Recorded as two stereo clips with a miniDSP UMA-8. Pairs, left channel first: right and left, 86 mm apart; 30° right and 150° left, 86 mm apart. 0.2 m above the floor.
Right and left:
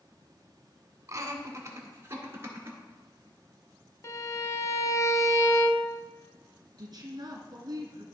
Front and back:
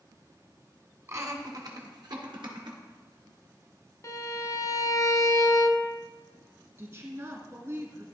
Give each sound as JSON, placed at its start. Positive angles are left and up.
{"t": 1.1, "sound": "laughter", "azimuth_deg": 115, "distance_m": 1.5}
{"t": 4.0, "sound": "a violin", "azimuth_deg": -55, "distance_m": 0.6}
{"t": 6.8, "sound": "a woman speaking", "azimuth_deg": 105, "distance_m": 1.9}